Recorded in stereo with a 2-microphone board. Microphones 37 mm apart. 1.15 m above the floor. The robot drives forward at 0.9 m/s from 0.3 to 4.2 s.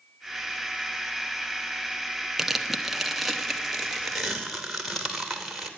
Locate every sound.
2.4 s tearing paper: 5° right (ahead or behind), 0.9 m; by 5.7 s centre (ahead or behind), 2.5 m